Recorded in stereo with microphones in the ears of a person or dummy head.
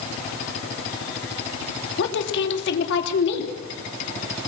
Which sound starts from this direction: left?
A woman speaking, at 2.0 s.